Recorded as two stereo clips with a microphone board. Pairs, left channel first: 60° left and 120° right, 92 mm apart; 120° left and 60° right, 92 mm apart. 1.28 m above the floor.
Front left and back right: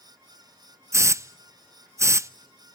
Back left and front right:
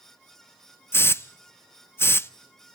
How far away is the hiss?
About 0.5 m.